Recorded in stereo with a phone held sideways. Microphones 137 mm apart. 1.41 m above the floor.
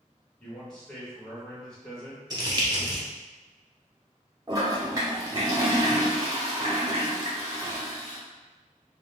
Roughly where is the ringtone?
I don't hear a ringtone.